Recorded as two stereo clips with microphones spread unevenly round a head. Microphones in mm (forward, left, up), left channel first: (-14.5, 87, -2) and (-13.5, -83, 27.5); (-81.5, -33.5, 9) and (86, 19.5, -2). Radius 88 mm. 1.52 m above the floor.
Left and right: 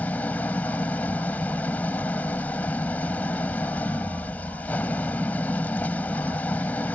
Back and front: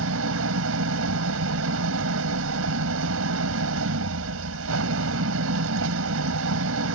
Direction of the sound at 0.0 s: 5° left.